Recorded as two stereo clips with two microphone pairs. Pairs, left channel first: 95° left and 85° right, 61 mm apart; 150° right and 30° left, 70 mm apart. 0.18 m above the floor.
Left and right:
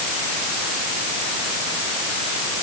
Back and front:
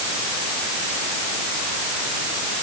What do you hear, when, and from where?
Only background noise.